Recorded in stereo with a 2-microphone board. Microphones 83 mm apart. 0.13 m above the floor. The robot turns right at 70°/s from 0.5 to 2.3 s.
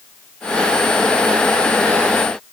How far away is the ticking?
I don't hear ticking.